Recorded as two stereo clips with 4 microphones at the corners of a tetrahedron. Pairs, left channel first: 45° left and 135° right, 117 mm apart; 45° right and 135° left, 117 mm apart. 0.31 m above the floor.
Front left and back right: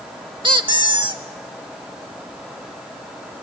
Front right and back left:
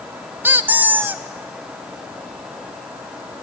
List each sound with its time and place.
0.4 s a squeak: 160° right, 0.8 m